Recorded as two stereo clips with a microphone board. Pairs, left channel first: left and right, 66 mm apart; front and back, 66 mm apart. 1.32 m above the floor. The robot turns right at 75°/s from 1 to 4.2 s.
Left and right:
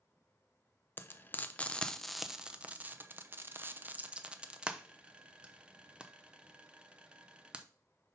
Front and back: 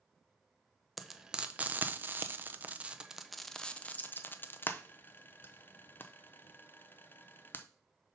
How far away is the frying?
About 0.5 m.